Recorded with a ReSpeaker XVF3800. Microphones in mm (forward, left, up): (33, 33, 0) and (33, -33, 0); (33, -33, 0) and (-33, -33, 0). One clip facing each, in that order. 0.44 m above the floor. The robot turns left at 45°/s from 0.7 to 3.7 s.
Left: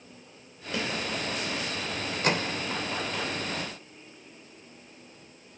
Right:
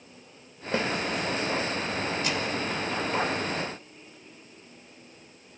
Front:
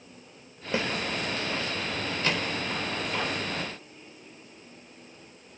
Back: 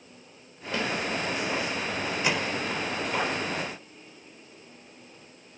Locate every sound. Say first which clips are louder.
0.7 s a snare drum: right 4 dB, front 1 dB; 60° right, 1.7 m; by 0.9 s 65° right, 1.7 m
2.2 s a microwave: left 2 dB, back 1 dB; 110° left, 1.2 m; by 2.6 s 95° left, 1.2 m